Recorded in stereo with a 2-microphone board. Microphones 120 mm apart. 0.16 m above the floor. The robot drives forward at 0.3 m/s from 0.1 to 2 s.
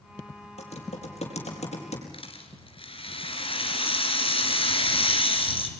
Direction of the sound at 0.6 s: 70° left (ahead or behind).